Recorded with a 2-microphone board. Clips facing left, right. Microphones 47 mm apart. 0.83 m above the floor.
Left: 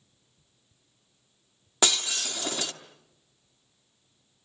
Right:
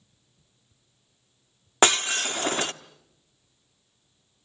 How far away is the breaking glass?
About 1.0 m.